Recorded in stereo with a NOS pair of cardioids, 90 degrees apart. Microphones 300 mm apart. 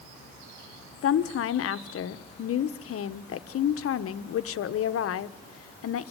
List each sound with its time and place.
1.0 s a woman speaking: 55° left, 1.3 m